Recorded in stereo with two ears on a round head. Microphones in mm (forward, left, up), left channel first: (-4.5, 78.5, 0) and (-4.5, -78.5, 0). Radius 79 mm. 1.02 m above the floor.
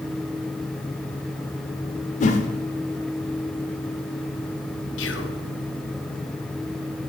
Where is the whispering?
80° left, 1.1 m.